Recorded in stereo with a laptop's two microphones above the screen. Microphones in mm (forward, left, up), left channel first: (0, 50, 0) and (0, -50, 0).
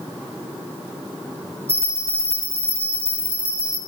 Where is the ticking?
I don't hear ticking.